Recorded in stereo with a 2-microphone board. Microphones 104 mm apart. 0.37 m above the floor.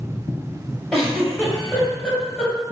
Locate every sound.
0.9 s a giggle: 10° left (ahead or behind), 1.4 m